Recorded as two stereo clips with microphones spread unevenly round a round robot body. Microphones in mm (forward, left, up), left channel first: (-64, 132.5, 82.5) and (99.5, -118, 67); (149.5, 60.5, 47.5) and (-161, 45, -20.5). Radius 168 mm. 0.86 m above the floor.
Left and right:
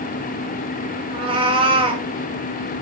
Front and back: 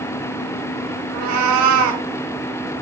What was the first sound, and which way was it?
A cat meowing, 130° right.